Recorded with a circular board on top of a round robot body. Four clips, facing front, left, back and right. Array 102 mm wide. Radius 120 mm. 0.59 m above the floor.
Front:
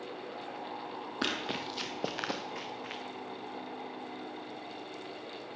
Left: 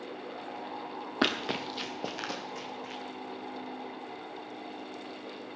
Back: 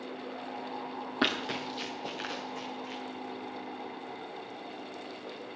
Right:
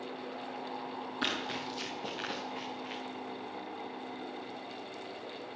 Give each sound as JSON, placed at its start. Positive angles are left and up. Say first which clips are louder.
{"t": 1.2, "sound": "running footsteps", "louder": "left 7 dB, back 4 dB", "azimuth_deg": 105, "distance_m": 0.9}